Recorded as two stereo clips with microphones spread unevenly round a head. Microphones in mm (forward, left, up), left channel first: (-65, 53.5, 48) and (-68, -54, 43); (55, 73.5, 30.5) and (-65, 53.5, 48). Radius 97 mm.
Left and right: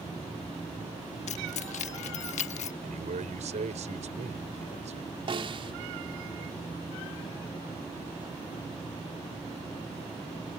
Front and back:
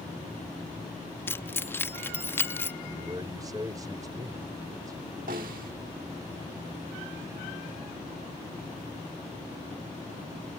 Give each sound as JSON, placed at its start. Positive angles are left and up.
{"t": 1.3, "sound": "keys jangling", "azimuth_deg": 85}
{"t": 2.8, "sound": "a man speaking", "azimuth_deg": -100}
{"t": 5.3, "sound": "a snare drum", "azimuth_deg": -130}